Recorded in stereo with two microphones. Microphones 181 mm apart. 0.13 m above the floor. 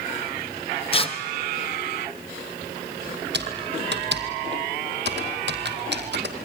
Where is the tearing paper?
30° left (ahead or behind), 1.5 m.